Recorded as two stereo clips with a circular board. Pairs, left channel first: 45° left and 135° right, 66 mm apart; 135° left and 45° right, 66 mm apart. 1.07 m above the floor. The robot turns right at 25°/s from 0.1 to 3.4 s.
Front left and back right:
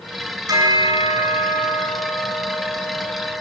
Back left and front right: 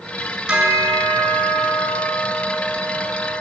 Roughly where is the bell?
Behind right.